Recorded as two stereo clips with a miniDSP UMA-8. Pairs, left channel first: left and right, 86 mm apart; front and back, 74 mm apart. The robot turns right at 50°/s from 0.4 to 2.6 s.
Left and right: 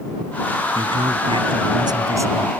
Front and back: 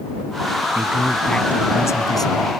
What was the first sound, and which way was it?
A man speaking, 110° right.